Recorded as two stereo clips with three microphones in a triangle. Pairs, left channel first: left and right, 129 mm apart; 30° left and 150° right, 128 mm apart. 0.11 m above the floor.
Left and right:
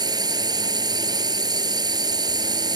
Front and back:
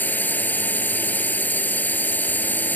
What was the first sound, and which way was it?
A drone, 45° right.